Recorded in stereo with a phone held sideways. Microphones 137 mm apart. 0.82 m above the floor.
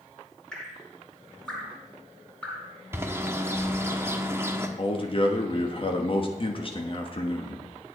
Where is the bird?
20° right (ahead or behind), 1.0 m.